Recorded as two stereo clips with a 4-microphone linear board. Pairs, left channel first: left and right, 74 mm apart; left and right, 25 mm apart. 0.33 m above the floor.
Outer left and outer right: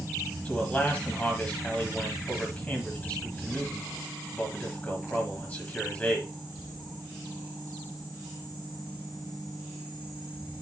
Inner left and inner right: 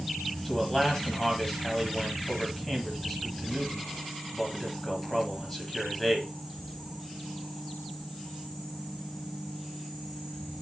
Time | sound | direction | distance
0.5 | a man speaking | 20° left (ahead or behind) | 1.6 m